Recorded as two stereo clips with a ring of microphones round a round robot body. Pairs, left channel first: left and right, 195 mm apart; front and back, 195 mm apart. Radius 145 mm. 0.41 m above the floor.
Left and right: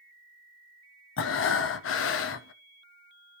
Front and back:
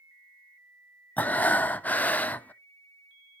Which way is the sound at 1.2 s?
85° left.